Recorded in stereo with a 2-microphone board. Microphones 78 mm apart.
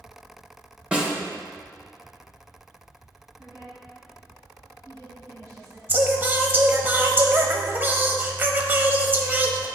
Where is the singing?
25° right (ahead or behind), 0.8 m.